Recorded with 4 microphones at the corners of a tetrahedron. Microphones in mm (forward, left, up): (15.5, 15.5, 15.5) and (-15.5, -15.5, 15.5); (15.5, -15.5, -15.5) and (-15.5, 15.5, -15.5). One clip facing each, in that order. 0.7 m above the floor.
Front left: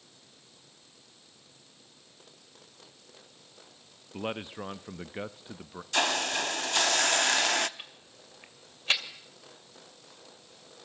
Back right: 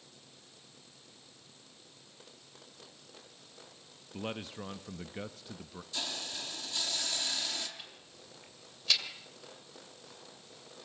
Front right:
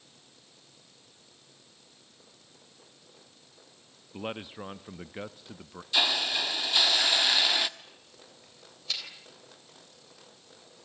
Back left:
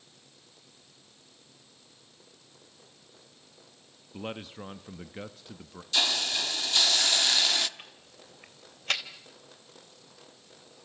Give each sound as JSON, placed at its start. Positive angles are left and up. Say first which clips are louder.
{"t": 4.1, "sound": "a man speaking", "louder": "front left 4 dB, front right 1 dB", "azimuth_deg": 20, "distance_m": 0.6}
{"t": 5.9, "sound": "a hiss", "louder": "front left 13 dB, front right 1 dB", "azimuth_deg": 30, "distance_m": 0.9}
{"t": 7.8, "sound": "ticking", "louder": "front left 3 dB, back left 2 dB", "azimuth_deg": 100, "distance_m": 2.5}